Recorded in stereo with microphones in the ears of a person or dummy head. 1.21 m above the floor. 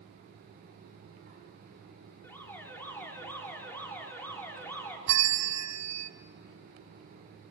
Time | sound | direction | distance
2.2 | an alarm | 5° left (ahead or behind) | 3 m
5.1 | a bell | 75° right (ahead or behind) | 1.2 m